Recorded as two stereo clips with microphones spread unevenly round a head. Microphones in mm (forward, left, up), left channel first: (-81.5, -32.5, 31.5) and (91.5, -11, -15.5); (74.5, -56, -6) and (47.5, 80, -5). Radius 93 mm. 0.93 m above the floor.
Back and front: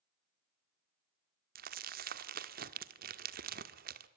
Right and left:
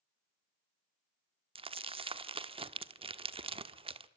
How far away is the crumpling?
About 1.5 m.